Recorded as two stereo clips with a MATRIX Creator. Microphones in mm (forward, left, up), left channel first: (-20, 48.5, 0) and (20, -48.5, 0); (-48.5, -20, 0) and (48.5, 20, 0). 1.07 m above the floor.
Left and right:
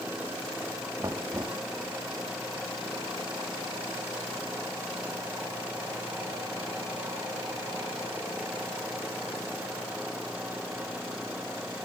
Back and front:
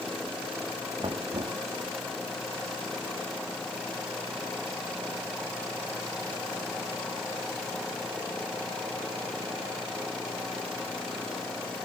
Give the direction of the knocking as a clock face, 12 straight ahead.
12 o'clock.